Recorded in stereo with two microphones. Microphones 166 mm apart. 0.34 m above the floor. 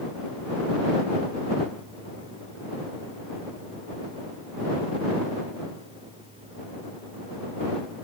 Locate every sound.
Only background noise.